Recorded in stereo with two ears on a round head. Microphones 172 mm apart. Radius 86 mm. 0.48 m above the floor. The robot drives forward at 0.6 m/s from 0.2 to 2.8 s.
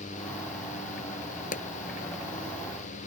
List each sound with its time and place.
1.5 s a pop: 40° left (ahead or behind); by 1.7 s 45° left (ahead or behind)